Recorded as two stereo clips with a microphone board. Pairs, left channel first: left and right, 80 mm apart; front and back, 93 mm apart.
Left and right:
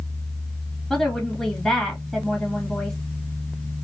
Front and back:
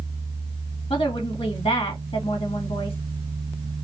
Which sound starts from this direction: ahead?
A woman speaking, at 0.9 s.